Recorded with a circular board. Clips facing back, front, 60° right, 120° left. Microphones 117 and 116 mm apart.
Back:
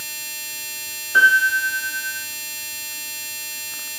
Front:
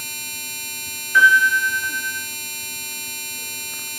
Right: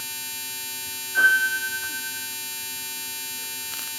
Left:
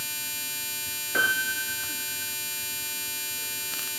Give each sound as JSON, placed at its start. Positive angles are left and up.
{"t": 1.1, "sound": "a piano", "azimuth_deg": 110, "distance_m": 4.5}